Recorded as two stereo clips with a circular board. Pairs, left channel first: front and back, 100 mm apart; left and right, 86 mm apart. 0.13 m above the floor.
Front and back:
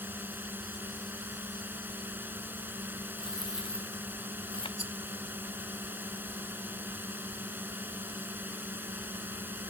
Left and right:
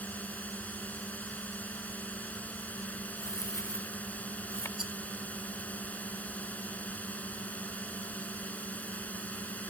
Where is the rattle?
175° right.